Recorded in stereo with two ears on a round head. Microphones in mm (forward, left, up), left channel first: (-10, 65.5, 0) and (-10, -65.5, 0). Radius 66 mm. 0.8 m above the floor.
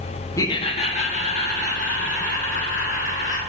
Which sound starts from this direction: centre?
Laughter, at 0.4 s.